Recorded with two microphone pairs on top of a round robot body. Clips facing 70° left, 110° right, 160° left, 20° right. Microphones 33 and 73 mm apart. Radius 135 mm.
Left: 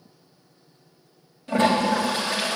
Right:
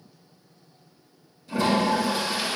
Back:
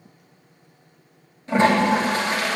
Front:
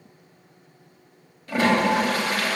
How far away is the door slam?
No door slam in this recording.